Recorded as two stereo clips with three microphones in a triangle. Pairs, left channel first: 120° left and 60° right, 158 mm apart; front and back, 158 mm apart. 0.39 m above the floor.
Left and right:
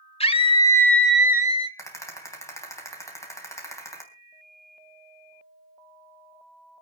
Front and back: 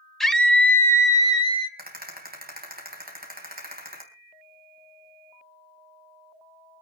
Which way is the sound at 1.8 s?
170° right.